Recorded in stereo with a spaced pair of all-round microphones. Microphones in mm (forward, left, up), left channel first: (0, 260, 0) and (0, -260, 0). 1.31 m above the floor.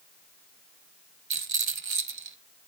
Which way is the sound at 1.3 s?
60° right (ahead or behind).